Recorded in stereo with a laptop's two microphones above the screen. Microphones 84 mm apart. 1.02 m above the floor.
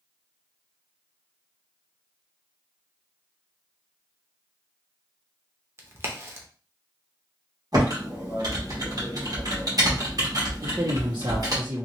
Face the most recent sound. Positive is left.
turn(degrees=-65)  # may be behind; listen again after turning